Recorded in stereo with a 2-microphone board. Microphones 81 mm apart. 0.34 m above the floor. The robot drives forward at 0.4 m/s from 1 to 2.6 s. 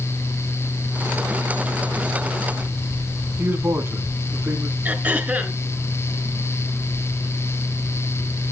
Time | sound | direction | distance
3.4 | a man speaking | 25° right (ahead or behind) | 2.5 m
4.8 | throat clearing | 20° right (ahead or behind) | 3.5 m